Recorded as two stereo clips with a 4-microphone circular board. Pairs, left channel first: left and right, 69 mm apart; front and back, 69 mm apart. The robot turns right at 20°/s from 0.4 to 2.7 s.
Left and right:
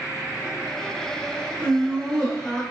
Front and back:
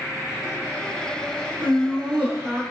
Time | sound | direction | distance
1.6 | laughter | 135° left | 1.5 m